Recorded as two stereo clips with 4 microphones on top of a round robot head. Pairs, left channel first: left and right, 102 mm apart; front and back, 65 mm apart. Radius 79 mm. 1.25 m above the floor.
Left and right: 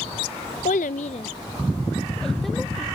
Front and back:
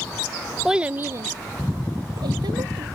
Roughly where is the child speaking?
Left.